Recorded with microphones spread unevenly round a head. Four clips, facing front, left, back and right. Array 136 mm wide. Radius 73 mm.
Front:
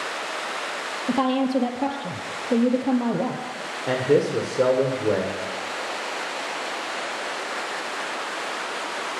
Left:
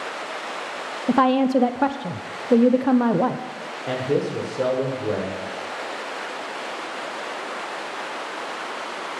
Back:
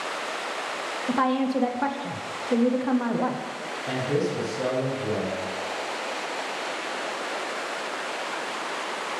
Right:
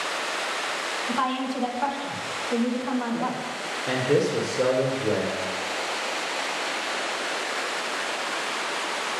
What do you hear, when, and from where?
1.1 s a woman speaking: 75° left, 0.5 m
3.9 s a man speaking: straight ahead, 1.4 m